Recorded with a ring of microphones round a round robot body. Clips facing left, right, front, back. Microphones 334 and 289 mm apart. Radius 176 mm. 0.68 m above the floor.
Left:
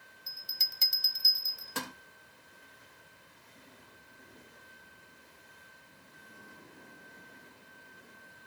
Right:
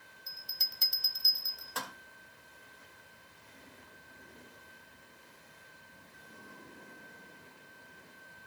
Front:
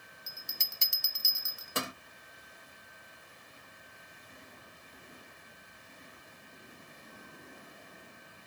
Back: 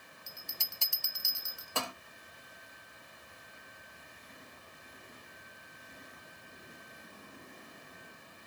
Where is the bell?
60° left, 0.8 m.